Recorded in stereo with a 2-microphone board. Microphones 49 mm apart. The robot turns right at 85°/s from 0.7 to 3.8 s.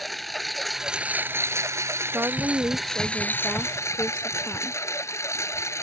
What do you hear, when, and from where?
0.0 s a lawn mower: straight behind; by 5.8 s 85° left
2.0 s a woman speaking: 120° right; by 4.8 s 30° left